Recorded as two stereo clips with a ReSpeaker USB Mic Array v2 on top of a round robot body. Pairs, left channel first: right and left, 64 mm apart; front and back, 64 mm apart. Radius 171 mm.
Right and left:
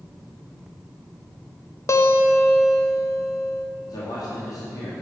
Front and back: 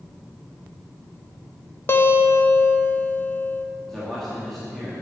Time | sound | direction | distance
1.9 | a guitar | 50° right | 0.8 m
3.9 | a man speaking | 80° right | 2 m